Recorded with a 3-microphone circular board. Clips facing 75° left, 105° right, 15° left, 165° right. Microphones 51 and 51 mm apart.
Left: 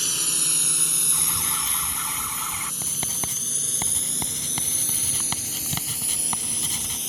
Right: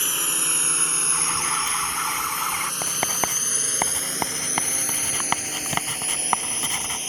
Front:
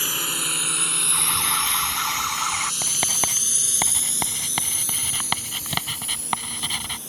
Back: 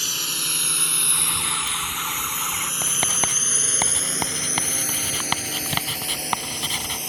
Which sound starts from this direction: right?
Writing, at 2.8 s.